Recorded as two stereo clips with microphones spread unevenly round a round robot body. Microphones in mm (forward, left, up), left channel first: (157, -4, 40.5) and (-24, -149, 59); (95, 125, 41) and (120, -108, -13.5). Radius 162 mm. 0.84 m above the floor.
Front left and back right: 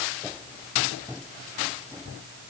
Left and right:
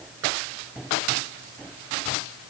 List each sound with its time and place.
Only background noise.